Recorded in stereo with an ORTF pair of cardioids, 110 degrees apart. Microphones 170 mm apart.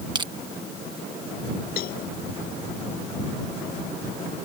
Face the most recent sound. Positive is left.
turn(degrees=65)